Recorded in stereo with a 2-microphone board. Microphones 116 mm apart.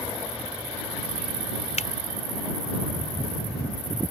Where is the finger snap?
85° left.